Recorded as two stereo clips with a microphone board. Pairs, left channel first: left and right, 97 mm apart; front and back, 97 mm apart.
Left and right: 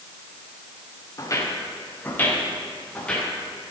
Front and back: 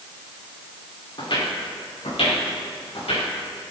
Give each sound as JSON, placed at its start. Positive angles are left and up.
{"t": 1.2, "sound": "footsteps", "azimuth_deg": 35, "distance_m": 3.0}